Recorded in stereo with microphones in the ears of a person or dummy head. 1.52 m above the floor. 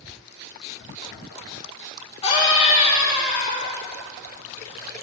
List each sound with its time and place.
2.2 s a scream: 25° left (ahead or behind), 3 m; by 3.8 s 20° left (ahead or behind), 2 m